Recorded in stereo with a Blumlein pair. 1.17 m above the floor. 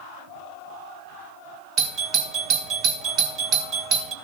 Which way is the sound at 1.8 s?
30° right.